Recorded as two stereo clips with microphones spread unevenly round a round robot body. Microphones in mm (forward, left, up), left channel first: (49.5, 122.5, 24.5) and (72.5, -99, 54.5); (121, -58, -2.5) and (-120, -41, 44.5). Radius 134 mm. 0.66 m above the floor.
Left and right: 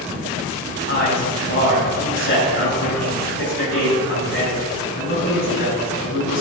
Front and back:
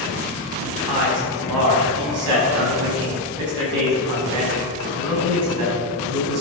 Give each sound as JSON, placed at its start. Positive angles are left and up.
{"t": 0.9, "sound": "a man speaking", "azimuth_deg": 150, "distance_m": 5.0}